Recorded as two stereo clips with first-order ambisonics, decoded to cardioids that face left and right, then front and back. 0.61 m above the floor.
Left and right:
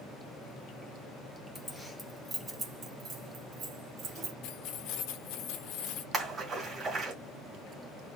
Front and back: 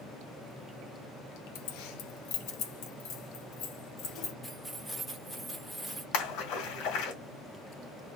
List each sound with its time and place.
1.6 s keys jangling: 5° left, 1.1 m; by 4.3 s 35° right, 2.5 m
4.4 s keys jangling: 95° left, 1.1 m
6.1 s a splash: 25° right, 2.0 m